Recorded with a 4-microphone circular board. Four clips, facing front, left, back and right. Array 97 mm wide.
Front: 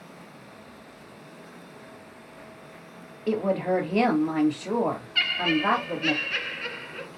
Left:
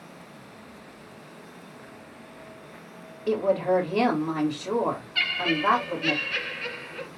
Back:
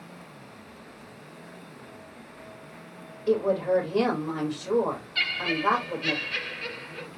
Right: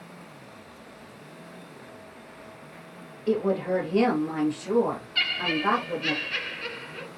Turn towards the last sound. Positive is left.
turn(degrees=5)